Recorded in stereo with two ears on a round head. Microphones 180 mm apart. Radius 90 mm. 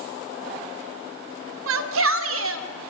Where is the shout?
75° right (ahead or behind), 2.5 m.